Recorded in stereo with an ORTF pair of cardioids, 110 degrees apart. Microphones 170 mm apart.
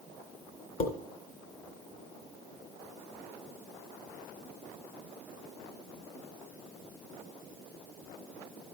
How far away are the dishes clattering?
About 2.5 m.